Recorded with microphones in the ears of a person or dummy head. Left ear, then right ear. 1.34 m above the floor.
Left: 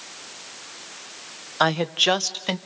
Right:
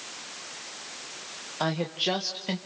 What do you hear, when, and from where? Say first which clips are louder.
1.6 s a woman speaking: left 8 dB; 55° left (ahead or behind), 1.0 m